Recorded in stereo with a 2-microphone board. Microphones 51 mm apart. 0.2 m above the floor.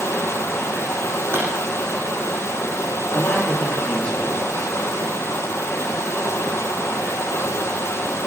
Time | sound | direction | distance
0.0 | running water | 60° left (ahead or behind) | 3 m
1.3 | a pop | 60° right (ahead or behind) | 7.5 m
3.1 | a man speaking | 20° left (ahead or behind) | 7 m